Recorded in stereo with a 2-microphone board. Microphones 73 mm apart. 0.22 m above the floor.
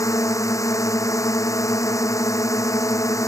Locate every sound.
0.0 s a drone: 45° left (ahead or behind)